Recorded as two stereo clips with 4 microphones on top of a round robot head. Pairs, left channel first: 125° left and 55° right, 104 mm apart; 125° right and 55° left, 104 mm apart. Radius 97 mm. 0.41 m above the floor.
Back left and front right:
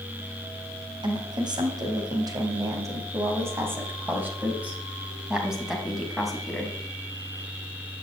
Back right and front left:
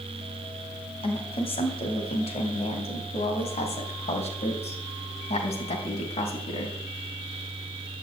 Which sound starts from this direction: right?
A woman speaking, at 1.0 s.